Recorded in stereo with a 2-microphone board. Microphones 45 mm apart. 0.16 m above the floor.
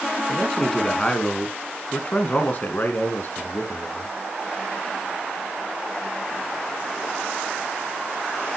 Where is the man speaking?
5° left (ahead or behind), 2 m; by 4.1 s 50° left (ahead or behind), 2.5 m.